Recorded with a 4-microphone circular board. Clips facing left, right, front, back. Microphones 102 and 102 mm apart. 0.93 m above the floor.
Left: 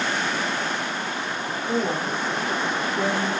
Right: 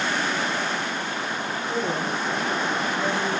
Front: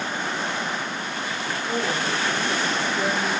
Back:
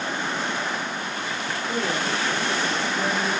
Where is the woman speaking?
55° left, 2 m; by 3.3 s 70° left, 3 m.